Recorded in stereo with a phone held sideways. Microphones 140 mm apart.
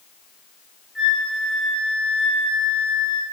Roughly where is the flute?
Centre.